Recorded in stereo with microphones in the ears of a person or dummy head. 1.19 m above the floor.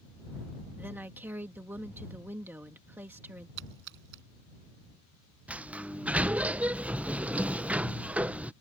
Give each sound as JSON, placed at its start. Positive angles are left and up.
{"t": 0.8, "sound": "a woman speaking", "side_deg": -10}
{"t": 3.6, "sound": "a splash", "side_deg": -65}
{"t": 5.5, "sound": "a sliding door", "side_deg": -5}